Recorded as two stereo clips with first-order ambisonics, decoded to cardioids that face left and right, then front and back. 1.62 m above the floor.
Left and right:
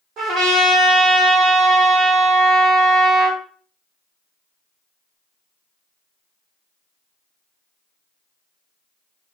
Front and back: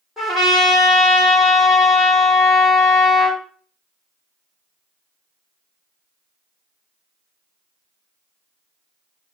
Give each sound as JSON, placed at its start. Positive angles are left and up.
{"t": 0.2, "sound": "a trumpet", "azimuth_deg": -95, "distance_m": 1.5}